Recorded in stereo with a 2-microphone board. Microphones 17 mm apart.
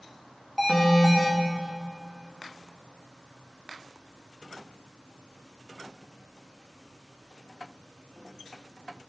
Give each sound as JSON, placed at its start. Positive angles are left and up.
{"t": 0.6, "sound": "an alarm", "side_deg": 0, "distance_m": 4.0}